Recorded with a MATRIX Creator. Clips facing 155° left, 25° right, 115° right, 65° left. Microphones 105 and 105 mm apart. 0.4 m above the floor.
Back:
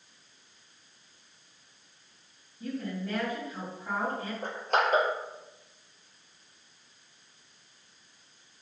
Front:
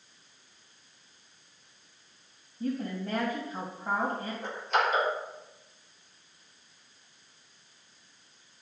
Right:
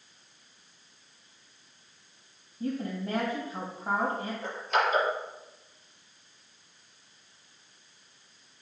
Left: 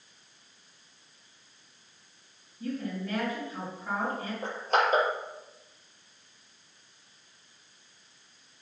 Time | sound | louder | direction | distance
2.6 | a woman speaking | front 2 dB, right 1 dB | 70° right | 2.5 m
4.4 | crushing | back 1 dB, left 2 dB | 115° left | 4.5 m